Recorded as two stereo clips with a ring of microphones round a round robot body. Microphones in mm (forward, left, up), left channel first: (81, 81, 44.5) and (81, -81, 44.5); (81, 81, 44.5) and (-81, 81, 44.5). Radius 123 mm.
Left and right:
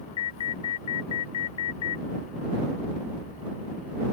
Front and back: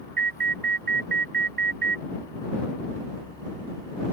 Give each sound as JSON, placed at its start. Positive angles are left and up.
{"t": 0.2, "sound": "an alarm", "azimuth_deg": 155}